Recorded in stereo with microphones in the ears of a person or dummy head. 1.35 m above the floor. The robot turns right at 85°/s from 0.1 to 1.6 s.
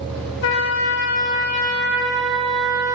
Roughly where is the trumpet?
Left.